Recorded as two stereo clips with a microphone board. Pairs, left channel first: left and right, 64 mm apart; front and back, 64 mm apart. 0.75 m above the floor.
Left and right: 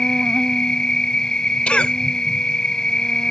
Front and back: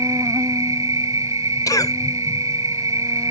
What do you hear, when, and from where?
0.0 s an insect: 170° left
1.7 s a cough: 20° left